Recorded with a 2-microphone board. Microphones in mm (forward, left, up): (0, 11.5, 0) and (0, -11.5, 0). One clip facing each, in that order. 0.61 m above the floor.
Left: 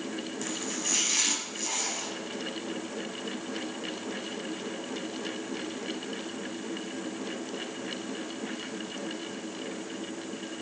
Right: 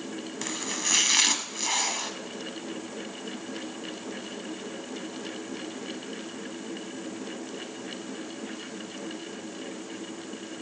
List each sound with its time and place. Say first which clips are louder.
0.4 s chopping: right 5 dB; 40° right (ahead or behind), 1.6 m